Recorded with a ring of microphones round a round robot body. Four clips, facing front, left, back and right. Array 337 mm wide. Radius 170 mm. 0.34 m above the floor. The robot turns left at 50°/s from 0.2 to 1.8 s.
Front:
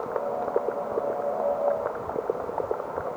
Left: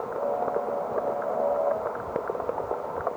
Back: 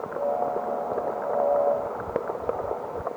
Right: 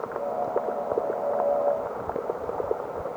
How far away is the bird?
No bird in this recording.